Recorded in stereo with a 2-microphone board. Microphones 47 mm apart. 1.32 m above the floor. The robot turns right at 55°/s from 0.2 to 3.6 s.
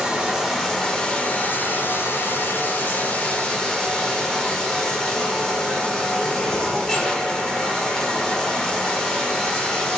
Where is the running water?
15° right, 0.9 m; by 10.0 s 170° left, 0.9 m.